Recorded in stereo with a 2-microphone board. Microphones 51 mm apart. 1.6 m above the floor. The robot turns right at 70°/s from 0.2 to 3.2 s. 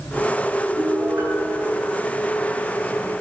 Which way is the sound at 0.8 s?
105° right.